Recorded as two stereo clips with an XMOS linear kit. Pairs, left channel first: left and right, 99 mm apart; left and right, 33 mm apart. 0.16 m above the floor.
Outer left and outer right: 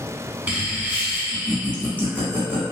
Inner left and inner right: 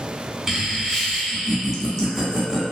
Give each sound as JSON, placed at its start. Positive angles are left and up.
{"t": 0.5, "sound": "laughter", "side_deg": -15, "distance_m": 1.1}